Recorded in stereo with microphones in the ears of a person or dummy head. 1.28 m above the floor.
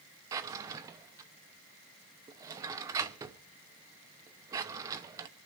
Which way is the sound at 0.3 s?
20° right (ahead or behind).